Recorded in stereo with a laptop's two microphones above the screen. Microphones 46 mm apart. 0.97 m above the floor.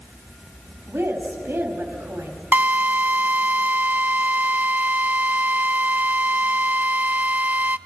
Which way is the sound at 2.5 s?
50° right (ahead or behind).